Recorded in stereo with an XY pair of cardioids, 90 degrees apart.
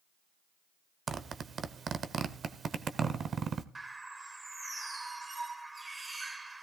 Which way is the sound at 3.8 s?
25° right.